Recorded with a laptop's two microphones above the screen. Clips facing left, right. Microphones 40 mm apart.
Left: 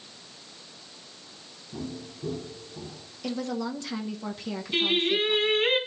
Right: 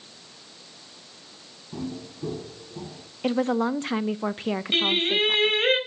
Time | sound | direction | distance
1.7 | footsteps | 50° right (ahead or behind) | 6 m
3.2 | a woman speaking | 40° right (ahead or behind) | 0.6 m
4.7 | singing | 90° right | 4.5 m